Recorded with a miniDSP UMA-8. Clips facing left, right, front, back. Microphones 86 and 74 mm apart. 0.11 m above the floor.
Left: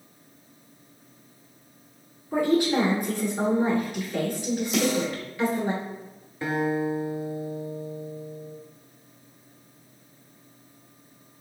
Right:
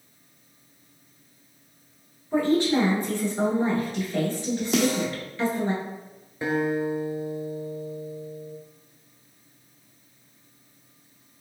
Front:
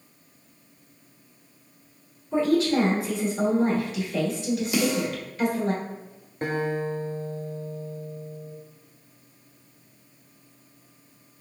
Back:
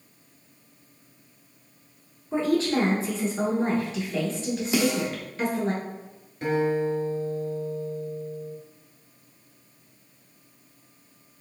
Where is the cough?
I don't hear a cough.